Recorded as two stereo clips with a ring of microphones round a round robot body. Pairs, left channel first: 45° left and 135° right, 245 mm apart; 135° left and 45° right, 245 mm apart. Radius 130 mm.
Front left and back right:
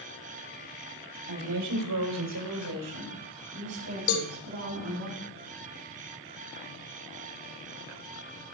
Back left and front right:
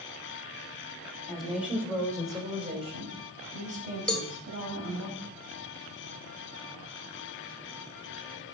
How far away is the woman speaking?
About 3 m.